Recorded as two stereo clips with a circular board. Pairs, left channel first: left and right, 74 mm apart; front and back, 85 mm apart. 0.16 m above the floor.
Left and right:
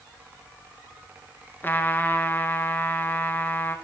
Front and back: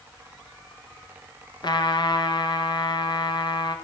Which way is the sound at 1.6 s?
25° left.